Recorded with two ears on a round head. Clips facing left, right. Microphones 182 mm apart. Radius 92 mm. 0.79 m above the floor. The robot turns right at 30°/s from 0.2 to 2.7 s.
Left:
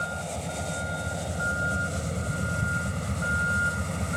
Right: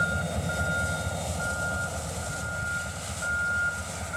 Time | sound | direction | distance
0.0 | a vehicle | 20° right | ?